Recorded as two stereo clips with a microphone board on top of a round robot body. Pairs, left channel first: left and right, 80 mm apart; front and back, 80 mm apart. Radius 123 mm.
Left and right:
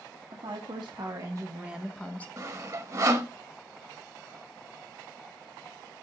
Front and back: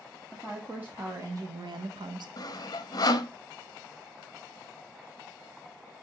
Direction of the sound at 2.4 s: 40° right.